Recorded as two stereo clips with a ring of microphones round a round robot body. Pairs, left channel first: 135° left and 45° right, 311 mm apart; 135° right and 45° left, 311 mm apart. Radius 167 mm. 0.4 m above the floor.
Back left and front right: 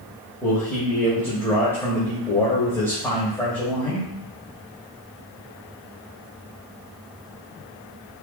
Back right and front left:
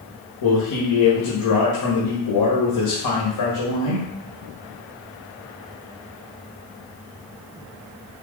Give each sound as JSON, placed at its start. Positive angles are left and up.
{"t": 0.4, "sound": "a man speaking", "azimuth_deg": -140, "distance_m": 2.0}